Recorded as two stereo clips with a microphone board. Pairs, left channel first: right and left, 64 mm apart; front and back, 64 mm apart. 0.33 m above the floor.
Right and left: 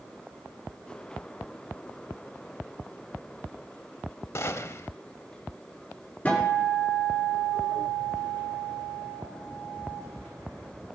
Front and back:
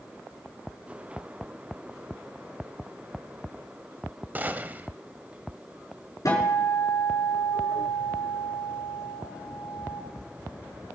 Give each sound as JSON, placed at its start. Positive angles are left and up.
{"t": 4.3, "sound": "a gunshot", "azimuth_deg": -125, "distance_m": 0.5}
{"t": 6.2, "sound": "a guitar", "azimuth_deg": -25, "distance_m": 4.0}